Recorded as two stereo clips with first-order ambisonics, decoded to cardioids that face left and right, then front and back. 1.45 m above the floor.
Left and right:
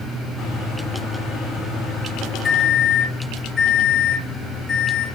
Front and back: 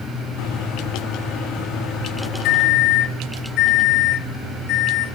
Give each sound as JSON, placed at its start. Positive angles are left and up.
{"t": 0.4, "sound": "a microwave", "azimuth_deg": 10, "distance_m": 3.0}